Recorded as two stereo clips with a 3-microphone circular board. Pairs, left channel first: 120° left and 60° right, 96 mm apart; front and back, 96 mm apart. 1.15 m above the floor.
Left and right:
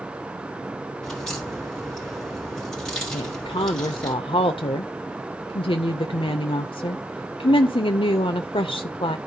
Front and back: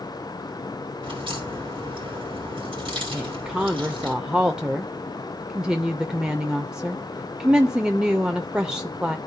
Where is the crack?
155° right, 3 m.